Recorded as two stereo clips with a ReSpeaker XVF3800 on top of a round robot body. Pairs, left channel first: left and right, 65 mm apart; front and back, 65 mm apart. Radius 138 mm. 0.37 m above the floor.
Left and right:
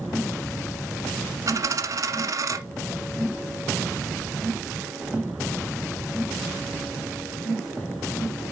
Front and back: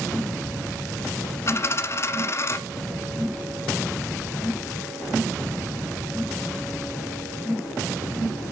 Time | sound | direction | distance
1.5 | a dropped coin | 50° right | 1.1 m